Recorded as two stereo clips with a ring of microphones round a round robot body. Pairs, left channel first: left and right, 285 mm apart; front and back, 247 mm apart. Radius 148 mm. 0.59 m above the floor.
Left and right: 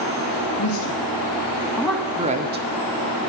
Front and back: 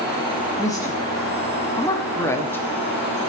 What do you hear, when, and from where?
0.6 s a woman speaking: 75° left, 1.9 m; by 2.7 s 80° right, 1.4 m